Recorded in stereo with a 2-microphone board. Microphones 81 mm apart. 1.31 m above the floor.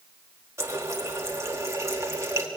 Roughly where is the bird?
I don't hear a bird.